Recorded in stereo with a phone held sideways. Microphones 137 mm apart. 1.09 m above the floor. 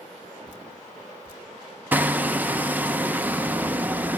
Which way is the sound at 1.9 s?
10° right (ahead or behind).